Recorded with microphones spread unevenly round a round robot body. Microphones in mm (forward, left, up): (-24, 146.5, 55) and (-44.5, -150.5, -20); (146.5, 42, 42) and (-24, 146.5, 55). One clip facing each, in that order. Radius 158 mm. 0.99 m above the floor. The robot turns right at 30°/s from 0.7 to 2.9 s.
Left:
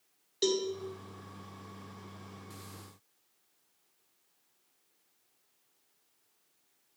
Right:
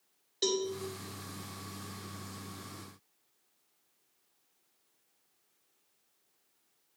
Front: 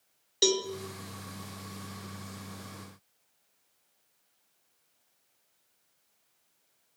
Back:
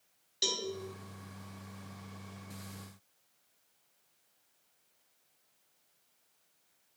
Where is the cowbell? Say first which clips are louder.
Left 2 dB, front 11 dB; straight ahead, 1.0 m.